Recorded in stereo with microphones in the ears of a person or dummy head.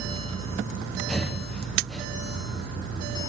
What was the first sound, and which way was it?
Breathing, 5° left (ahead or behind).